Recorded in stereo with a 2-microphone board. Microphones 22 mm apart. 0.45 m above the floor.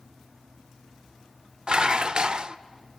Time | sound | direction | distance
1.7 | dishes clattering | 40° right (ahead or behind) | 0.6 m